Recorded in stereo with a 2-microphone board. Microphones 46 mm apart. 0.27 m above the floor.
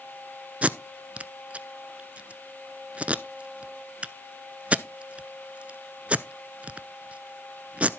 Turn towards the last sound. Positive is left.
turn(degrees=-25)  # may be behind; listen again after turning